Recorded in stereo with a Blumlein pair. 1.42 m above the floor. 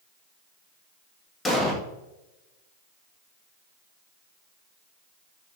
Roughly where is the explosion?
Ahead.